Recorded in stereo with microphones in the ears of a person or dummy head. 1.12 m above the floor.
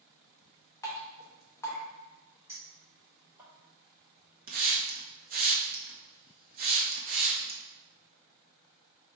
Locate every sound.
0.8 s dripping: 15° left (ahead or behind), 0.8 m
2.5 s a clink: 15° right (ahead or behind), 1.5 m
4.5 s a hiss: 40° right (ahead or behind), 0.6 m